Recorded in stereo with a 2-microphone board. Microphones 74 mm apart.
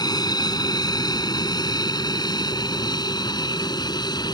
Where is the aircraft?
65° left (ahead or behind).